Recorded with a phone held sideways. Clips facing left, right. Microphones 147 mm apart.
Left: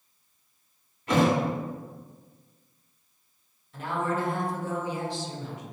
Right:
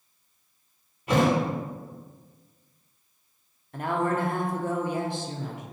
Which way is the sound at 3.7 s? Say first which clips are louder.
Right 3 dB; 55° right (ahead or behind).